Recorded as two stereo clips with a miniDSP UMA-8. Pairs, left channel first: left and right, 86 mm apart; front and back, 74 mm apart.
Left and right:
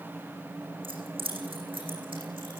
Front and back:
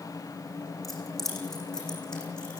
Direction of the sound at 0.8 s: 90° right.